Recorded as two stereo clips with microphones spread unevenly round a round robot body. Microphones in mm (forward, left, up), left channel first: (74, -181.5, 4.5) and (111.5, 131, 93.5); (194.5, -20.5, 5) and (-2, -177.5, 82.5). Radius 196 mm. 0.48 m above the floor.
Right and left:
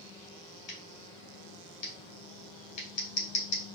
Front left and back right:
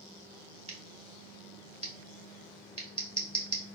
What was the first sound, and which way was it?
Scissors, 70° right.